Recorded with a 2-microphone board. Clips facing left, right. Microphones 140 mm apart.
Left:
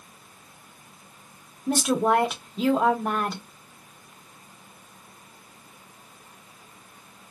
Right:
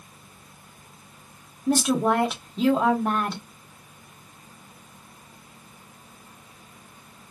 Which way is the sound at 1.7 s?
5° left (ahead or behind).